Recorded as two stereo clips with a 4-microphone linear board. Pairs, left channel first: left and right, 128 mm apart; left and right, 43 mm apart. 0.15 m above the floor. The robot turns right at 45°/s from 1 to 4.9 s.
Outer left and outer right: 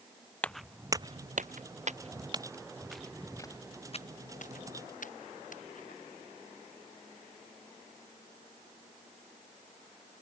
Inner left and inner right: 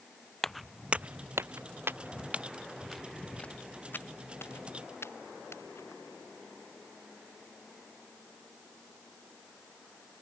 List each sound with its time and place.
0.4 s footsteps: 10° left (ahead or behind); by 5.9 s 80° left